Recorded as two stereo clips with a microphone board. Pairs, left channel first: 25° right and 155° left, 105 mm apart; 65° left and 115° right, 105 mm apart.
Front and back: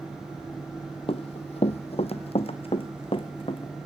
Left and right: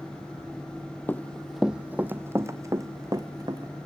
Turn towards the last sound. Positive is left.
turn(degrees=-60)